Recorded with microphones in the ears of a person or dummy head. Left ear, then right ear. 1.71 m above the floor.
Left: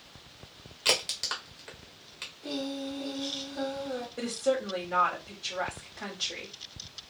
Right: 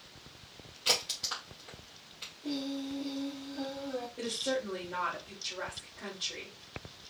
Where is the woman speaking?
60° left (ahead or behind), 1.7 m.